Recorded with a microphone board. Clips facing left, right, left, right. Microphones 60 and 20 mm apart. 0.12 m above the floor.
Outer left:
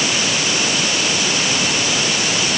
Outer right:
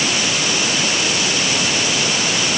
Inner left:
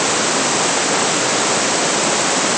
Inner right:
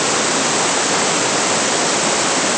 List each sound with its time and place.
Only background noise.